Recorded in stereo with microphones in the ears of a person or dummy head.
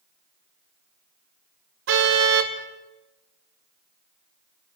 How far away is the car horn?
About 2.5 m.